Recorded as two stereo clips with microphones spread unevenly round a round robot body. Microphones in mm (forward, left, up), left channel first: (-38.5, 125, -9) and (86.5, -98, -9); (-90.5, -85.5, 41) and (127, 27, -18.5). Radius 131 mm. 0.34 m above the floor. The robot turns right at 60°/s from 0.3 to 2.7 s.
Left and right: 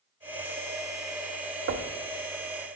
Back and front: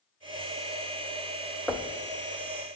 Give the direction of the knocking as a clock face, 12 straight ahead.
2 o'clock.